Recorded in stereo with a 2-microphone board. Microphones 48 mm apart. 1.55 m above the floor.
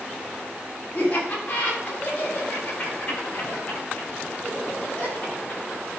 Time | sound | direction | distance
0.9 | laughter | 35° left (ahead or behind) | 4.5 m